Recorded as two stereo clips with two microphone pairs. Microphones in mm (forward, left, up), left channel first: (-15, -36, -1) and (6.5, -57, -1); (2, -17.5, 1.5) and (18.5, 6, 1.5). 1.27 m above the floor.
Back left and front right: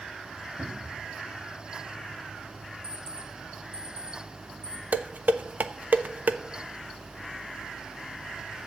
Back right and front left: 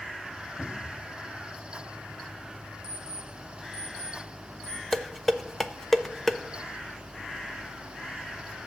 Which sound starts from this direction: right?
A cupboard door, at 0.6 s.